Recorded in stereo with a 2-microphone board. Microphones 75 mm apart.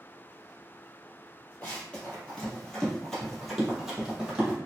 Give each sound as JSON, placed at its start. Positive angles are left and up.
{"t": 1.6, "sound": "running footsteps", "side_deg": 25, "distance_m": 1.4}